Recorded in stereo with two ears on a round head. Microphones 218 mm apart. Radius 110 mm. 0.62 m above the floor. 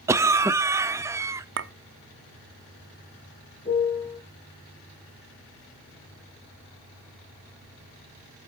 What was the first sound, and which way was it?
A cough, 10° right (ahead or behind).